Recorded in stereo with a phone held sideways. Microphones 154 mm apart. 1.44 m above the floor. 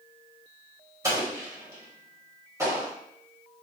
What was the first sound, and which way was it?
An explosion, 20° right (ahead or behind).